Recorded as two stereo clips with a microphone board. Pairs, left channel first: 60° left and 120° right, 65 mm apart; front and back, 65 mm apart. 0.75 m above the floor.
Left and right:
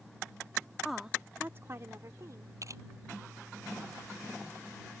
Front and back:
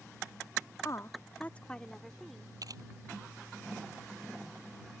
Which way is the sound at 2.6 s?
155° right.